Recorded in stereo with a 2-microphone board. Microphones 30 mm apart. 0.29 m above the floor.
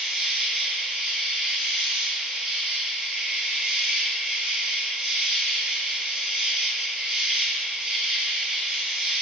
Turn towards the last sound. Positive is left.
turn(degrees=-15)  # may be behind; listen again after turning